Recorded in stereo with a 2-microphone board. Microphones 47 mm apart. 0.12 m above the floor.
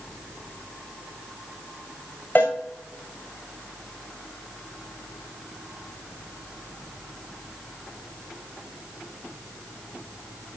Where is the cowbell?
35° left (ahead or behind), 3 m.